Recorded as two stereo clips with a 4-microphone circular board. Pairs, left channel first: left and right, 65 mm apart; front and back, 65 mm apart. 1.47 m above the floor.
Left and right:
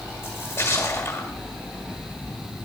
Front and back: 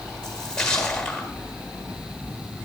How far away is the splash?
About 1.6 m.